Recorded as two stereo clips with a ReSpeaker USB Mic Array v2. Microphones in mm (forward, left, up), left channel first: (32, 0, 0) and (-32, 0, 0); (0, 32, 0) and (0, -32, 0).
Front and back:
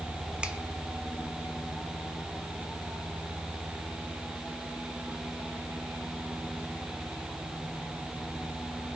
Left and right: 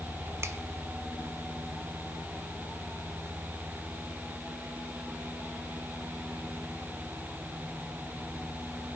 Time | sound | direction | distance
0.4 | a finger snap | 110° right | 1.1 m